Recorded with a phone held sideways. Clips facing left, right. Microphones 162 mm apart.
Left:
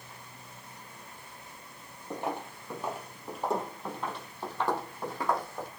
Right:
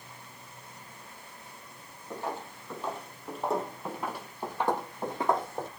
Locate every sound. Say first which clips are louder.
2.1 s footsteps: left 2 dB; 20° left (ahead or behind), 3 m; by 5.7 s 25° right (ahead or behind), 3.5 m